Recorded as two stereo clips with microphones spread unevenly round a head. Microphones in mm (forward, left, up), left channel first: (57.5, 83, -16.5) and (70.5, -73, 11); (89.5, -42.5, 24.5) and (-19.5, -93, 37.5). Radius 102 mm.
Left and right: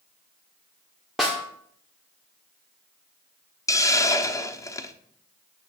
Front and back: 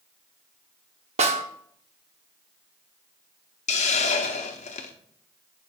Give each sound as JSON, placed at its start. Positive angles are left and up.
{"t": 1.2, "sound": "a snare drum", "azimuth_deg": -165, "distance_m": 1.1}
{"t": 3.7, "sound": "a hiss", "azimuth_deg": 20, "distance_m": 1.0}